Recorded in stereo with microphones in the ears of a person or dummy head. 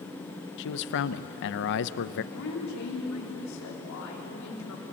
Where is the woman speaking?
85° left, 4 m.